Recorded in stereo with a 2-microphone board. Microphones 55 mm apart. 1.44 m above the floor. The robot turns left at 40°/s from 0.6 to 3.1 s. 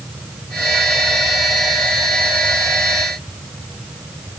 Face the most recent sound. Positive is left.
No sound to turn to.